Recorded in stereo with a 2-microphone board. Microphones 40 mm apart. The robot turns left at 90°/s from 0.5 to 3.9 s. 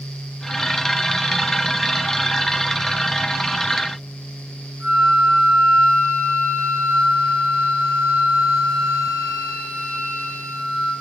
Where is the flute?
75° right (ahead or behind), 2.5 m.